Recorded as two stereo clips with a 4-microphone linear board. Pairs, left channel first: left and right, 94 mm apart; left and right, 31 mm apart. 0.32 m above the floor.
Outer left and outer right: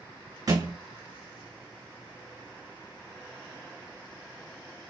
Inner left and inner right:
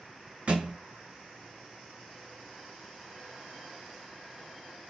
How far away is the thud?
About 1.2 m.